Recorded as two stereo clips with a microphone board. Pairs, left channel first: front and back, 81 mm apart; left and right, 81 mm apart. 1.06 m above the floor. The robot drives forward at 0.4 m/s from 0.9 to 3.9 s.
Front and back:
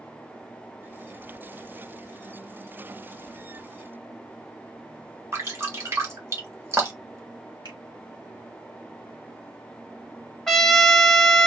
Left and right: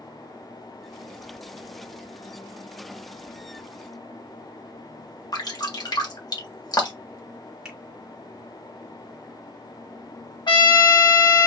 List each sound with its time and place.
5.3 s dripping: 125° left, 1.8 m
7.7 s a finger snap: 175° right, 2.5 m
10.5 s a trumpet: 85° left, 1.5 m